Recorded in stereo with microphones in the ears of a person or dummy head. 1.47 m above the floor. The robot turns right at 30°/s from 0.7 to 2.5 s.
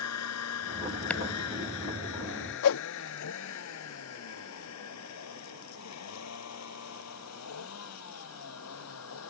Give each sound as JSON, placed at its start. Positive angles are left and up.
{"t": 0.0, "sound": "a vehicle", "side_deg": 90}
{"t": 1.1, "sound": "chopping", "side_deg": 5}
{"t": 2.6, "sound": "a whoosh", "side_deg": 75}